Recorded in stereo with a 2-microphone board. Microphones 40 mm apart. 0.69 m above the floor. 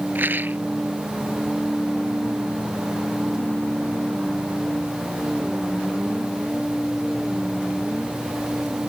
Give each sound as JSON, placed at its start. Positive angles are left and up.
{"t": 0.1, "sound": "a rattle", "side_deg": -55}